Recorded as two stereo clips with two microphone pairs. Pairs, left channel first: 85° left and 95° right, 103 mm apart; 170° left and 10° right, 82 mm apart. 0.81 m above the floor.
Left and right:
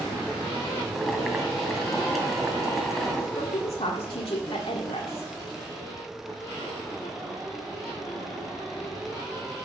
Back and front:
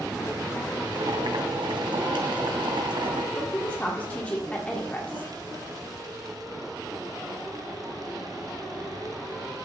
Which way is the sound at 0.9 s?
5° right.